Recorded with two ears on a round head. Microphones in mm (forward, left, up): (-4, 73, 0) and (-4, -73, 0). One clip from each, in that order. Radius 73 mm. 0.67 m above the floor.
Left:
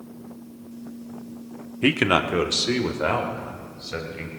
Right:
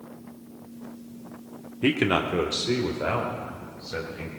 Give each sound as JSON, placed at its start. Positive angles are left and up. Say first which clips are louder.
{"t": 1.8, "sound": "a man speaking", "louder": "left 3 dB", "side_deg": 25, "distance_m": 0.8}